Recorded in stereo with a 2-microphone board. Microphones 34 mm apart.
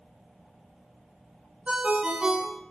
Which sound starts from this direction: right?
A ringtone, at 1.7 s.